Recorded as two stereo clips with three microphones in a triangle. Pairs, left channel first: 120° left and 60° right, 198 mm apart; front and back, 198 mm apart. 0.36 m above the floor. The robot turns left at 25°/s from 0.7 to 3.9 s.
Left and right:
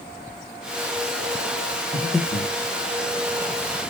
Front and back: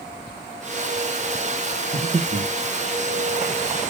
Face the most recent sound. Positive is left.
turn(degrees=-175)